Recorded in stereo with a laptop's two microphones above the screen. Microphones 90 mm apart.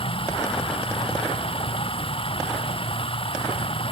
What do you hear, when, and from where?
0.0 s running water: 85° left